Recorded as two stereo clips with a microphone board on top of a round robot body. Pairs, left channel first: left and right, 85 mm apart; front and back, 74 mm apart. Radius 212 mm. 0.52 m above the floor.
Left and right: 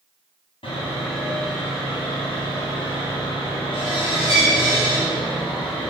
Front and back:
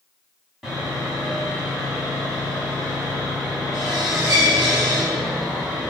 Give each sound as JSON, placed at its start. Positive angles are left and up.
{"t": 0.6, "sound": "sawing", "azimuth_deg": 95, "distance_m": 1.0}